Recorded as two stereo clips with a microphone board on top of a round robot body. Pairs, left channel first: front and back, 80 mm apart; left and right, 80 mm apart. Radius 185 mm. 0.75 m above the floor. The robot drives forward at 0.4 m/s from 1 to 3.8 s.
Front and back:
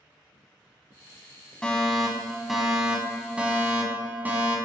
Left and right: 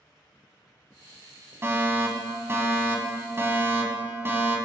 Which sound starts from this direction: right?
A fire alarm, at 1.6 s.